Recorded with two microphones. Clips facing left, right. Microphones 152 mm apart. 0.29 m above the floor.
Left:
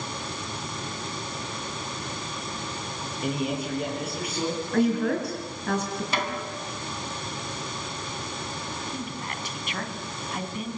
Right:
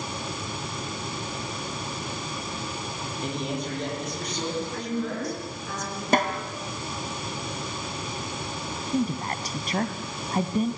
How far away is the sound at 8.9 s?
About 1.8 m.